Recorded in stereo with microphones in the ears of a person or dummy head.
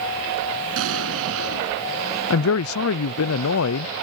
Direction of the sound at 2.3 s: 80° left.